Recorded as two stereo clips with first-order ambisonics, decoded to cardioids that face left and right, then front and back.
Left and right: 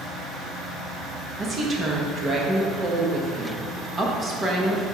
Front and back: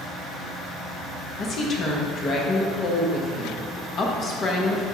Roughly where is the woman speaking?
Ahead right.